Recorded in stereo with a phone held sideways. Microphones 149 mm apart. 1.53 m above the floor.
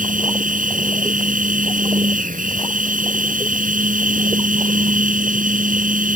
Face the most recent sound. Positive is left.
turn(degrees=-75)  # may be behind; listen again after turning